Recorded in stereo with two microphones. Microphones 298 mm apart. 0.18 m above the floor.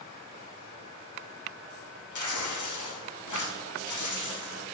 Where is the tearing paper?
80° left, 1.8 m.